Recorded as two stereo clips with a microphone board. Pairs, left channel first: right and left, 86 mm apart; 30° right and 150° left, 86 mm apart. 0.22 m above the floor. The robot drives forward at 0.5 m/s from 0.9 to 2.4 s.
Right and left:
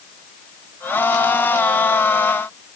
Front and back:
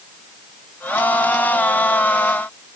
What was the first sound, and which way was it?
Only background noise.